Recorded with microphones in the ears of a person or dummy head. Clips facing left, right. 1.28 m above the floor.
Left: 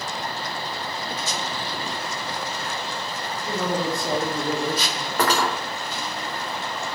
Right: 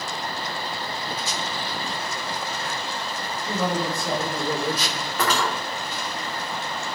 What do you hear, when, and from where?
3.5 s a man speaking: 15° left (ahead or behind), 1.0 m; by 5.1 s 20° right (ahead or behind), 0.5 m
5.2 s cutlery clinking: 35° left (ahead or behind), 0.6 m